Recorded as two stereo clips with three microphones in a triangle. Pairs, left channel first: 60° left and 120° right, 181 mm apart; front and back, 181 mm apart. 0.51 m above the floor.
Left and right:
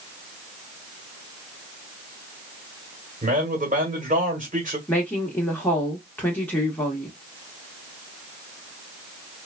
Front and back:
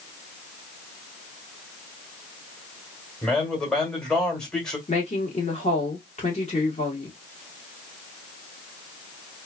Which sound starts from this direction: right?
A man speaking, at 3.2 s.